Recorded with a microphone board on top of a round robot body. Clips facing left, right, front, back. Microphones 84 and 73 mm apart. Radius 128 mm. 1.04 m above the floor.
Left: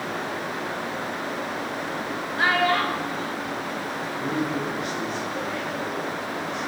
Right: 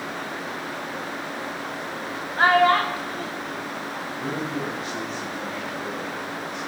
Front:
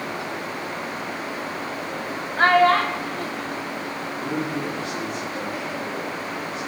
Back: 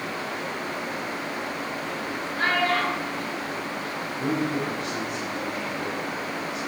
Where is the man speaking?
Straight behind, 6 m.